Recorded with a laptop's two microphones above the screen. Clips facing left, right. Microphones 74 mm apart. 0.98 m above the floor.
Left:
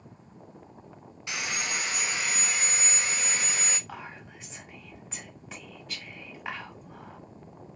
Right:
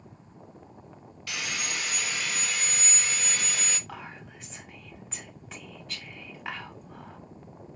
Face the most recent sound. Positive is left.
turn(degrees=0)  # may be behind; listen again after turning